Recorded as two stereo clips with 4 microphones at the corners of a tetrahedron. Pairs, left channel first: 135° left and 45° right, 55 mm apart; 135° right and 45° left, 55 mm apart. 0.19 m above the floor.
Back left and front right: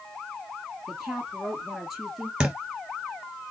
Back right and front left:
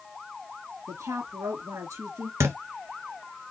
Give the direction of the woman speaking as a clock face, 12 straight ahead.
11 o'clock.